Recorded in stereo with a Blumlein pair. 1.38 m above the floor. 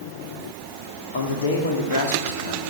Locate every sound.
1.1 s a man speaking: 60° left, 2.5 m